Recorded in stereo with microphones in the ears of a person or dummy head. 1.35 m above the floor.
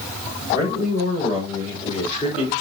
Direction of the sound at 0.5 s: 50° left (ahead or behind).